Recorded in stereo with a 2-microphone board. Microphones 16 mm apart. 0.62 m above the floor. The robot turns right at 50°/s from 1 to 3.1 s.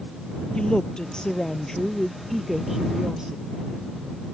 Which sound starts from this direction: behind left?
A woman speaking, at 0.6 s.